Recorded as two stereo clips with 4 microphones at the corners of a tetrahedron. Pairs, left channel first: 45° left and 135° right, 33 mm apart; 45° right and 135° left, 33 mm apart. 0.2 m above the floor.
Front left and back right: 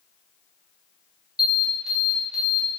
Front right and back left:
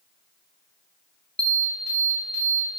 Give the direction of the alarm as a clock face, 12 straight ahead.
2 o'clock.